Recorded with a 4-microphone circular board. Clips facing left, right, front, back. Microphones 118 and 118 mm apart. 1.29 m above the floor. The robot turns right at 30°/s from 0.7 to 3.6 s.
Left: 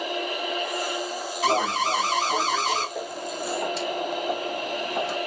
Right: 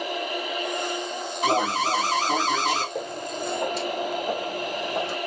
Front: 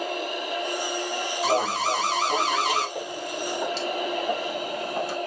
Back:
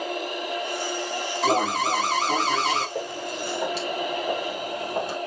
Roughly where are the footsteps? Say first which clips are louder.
Right 1 dB, back 1 dB; behind right.